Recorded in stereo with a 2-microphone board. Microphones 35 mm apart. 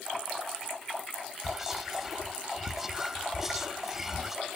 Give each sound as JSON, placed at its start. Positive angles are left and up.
{"t": 1.4, "sound": "whispering", "side_deg": -5, "distance_m": 0.7}